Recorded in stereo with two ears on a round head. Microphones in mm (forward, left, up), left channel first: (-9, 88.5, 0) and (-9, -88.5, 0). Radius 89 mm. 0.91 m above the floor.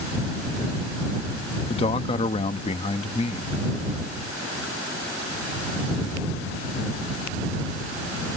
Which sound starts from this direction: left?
A man speaking, at 1.7 s.